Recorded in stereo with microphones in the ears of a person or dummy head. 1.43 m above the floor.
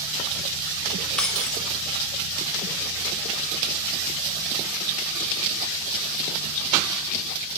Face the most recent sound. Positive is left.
turn(degrees=5)  # may be behind; listen again after turning